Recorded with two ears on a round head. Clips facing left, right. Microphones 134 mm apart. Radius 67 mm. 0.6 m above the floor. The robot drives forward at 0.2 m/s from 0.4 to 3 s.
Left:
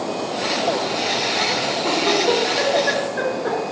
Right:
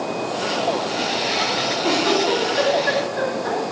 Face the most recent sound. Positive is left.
turn(degrees=-65)  # may be behind; listen again after turning